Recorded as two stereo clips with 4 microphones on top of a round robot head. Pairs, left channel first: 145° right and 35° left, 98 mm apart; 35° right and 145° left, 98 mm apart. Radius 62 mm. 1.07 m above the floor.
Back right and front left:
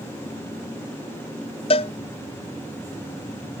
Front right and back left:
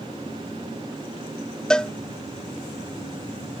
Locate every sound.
1.7 s a cowbell: 120° right